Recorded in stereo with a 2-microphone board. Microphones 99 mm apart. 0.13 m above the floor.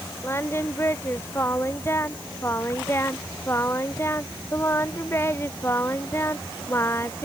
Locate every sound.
0.2 s singing: 25° left (ahead or behind)